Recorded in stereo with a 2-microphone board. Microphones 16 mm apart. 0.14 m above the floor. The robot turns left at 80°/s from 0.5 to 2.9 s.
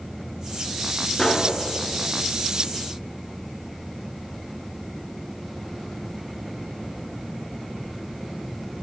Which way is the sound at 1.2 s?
40° left (ahead or behind).